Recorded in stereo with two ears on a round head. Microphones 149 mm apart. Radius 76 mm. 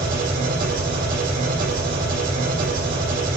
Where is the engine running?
60° right (ahead or behind), 7.5 m.